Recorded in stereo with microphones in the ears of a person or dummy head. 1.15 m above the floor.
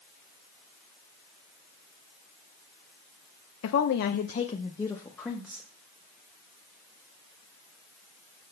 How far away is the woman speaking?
About 0.6 m.